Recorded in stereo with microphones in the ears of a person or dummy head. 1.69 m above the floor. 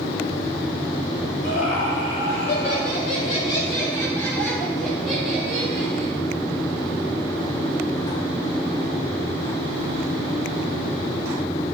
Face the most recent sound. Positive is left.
turn(degrees=-15)  # may be behind; listen again after turning